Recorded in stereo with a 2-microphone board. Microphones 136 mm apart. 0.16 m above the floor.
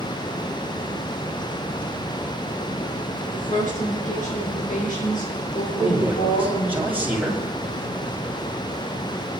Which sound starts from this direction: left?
A woman speaking, at 3.3 s.